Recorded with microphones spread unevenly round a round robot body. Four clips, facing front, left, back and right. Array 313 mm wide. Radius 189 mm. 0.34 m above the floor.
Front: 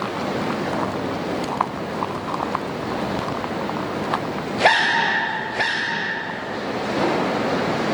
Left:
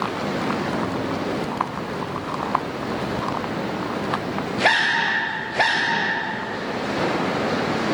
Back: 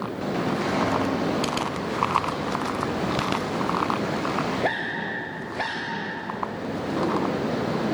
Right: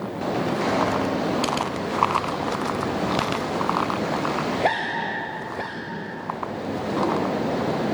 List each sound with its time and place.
Only background noise.